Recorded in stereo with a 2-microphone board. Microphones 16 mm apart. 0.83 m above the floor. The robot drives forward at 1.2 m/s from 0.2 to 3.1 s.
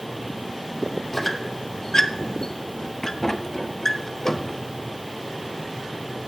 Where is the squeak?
20° left (ahead or behind), 1.9 m; by 4.6 s 30° left (ahead or behind), 1.2 m.